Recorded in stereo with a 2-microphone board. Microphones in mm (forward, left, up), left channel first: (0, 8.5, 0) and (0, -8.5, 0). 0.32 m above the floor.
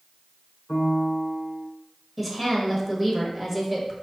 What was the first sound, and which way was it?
A piano, 35° left (ahead or behind).